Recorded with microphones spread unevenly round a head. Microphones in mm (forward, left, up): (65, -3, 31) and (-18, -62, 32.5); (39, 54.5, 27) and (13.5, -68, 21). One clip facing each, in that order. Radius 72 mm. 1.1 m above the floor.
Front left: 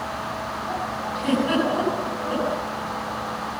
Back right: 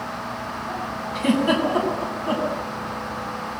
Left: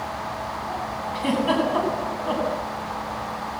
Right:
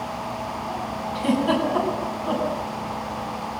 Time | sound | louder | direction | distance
1.1 | a giggle | back right 2 dB, right 1 dB | 165° left | 8.5 m